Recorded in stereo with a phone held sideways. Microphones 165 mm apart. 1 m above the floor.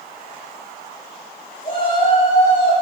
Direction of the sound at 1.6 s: 55° left (ahead or behind).